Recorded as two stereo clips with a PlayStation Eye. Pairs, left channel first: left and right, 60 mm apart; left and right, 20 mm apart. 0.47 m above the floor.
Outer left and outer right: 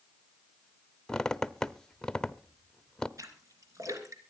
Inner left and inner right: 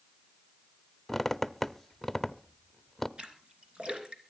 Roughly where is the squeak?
Centre.